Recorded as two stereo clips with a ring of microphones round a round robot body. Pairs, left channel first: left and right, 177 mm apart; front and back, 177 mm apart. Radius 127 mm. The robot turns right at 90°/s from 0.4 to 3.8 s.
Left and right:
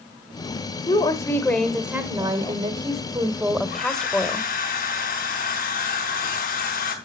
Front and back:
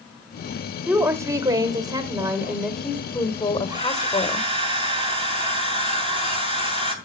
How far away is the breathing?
No breathing in this recording.